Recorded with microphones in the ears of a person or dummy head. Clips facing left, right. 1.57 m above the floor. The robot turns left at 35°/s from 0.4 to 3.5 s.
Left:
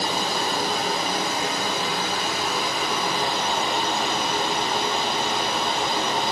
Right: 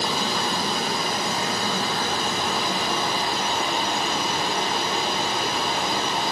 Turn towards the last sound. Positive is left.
turn(degrees=180)